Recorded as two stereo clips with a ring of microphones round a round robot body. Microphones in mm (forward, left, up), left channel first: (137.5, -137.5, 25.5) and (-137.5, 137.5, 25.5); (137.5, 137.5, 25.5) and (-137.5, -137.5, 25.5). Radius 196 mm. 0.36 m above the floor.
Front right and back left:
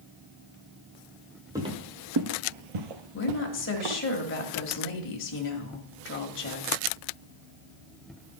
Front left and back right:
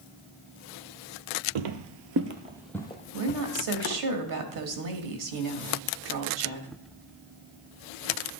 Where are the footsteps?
145° right, 0.8 m; by 4.0 s 100° left, 1.6 m.